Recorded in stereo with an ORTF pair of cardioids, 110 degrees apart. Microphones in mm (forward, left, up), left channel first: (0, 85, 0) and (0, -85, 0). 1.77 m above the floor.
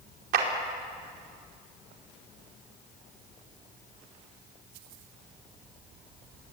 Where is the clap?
65° right, 5 m.